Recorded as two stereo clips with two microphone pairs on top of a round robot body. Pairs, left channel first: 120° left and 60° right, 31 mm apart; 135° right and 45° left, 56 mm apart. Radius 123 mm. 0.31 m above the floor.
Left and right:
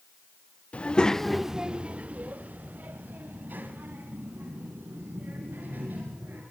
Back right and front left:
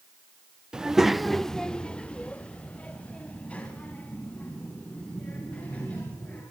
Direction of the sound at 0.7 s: 95° left.